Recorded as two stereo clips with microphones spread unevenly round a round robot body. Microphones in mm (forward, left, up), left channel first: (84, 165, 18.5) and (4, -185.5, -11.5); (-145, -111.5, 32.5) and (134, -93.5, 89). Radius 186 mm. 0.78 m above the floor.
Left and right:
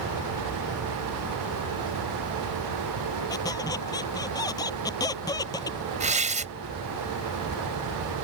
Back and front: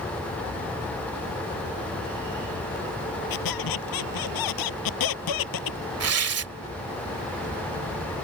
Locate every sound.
3.3 s a squeak: 155° left
6.0 s tearing paper: 30° right